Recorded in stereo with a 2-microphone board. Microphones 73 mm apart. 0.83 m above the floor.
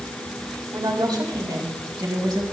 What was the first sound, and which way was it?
A woman speaking, 80° right.